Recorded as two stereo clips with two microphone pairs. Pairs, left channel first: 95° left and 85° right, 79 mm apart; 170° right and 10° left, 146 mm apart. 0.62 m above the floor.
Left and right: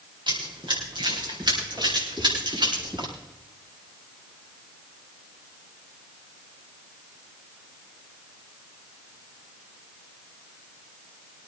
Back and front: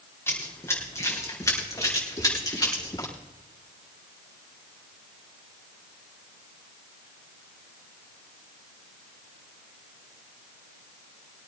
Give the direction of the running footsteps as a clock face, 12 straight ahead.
3 o'clock.